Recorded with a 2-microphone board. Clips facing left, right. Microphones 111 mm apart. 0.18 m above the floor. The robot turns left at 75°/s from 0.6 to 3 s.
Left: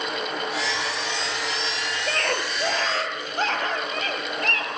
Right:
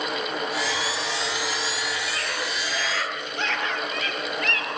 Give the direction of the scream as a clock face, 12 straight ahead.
8 o'clock.